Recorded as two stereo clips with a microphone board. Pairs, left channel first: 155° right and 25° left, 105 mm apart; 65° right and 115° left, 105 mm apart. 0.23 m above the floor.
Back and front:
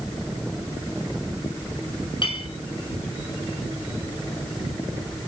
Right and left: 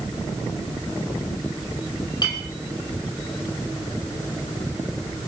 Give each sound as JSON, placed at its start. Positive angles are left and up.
{"t": 2.2, "sound": "a clink", "azimuth_deg": -115, "distance_m": 6.0}